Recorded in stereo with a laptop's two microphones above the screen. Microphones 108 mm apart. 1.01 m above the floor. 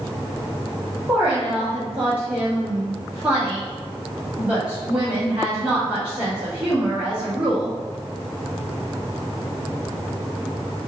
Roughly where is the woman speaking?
Centre.